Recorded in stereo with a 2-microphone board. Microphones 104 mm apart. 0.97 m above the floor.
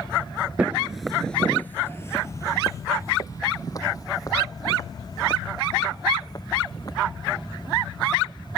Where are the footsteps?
15° right (ahead or behind); by 6.9 s 40° left (ahead or behind).